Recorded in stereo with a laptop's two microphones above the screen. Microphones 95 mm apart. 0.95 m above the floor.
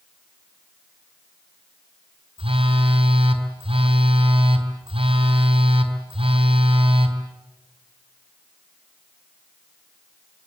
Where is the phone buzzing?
85° right, 3.5 m.